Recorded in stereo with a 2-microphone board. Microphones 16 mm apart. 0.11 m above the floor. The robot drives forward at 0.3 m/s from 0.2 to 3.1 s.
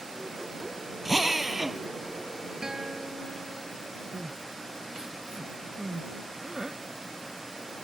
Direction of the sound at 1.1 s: 20° right (ahead or behind).